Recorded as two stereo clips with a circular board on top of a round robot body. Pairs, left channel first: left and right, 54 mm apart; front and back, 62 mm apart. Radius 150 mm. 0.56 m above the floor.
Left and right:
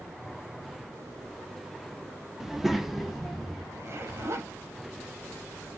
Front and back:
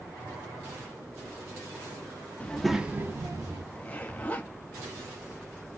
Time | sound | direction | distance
2.4 | a child speaking | 15° right | 0.7 m
3.7 | a zipper | 65° right | 1.1 m